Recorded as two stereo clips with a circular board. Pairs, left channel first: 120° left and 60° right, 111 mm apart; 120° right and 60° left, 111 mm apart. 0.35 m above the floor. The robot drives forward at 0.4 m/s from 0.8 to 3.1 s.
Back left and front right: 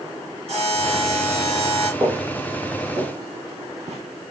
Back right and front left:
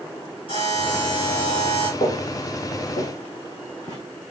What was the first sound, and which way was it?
A buzzer, 80° right.